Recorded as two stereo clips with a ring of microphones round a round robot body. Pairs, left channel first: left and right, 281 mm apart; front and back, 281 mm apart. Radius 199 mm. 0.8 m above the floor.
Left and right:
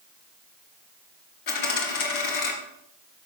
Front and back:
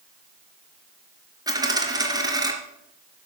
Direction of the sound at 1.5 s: 105° left.